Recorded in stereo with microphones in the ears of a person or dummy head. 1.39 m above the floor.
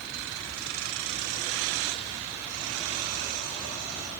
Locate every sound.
Only background noise.